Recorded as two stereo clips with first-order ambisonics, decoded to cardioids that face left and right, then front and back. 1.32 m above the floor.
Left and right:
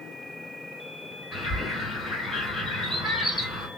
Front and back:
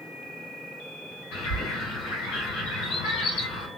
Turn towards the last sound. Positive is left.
turn(degrees=10)